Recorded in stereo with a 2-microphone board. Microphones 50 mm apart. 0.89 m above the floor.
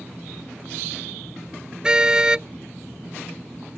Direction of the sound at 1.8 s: 15° right (ahead or behind).